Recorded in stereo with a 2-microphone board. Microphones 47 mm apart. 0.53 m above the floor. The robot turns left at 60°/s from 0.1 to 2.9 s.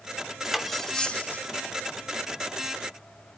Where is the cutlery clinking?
165° right, 0.8 m; by 1.4 s 135° left, 0.8 m.